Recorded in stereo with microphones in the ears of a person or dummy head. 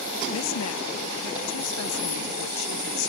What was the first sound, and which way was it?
A woman speaking, 80° left.